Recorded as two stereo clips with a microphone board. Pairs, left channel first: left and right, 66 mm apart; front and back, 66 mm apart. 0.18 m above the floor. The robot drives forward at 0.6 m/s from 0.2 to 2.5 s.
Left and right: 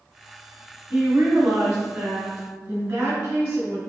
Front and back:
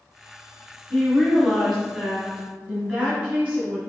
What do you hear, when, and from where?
0.9 s a woman speaking: 50° right, 1.7 m; by 3.8 s 120° right, 1.7 m